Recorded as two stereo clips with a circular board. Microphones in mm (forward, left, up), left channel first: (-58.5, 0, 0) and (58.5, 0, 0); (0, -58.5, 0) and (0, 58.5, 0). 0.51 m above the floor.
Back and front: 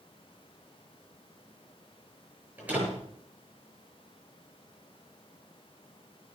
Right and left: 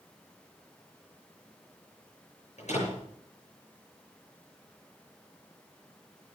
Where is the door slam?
75° right, 7 m.